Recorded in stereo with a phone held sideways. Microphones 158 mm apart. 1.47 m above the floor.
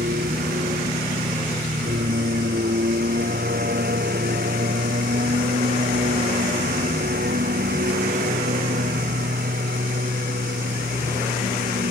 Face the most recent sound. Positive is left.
turn(degrees=-80)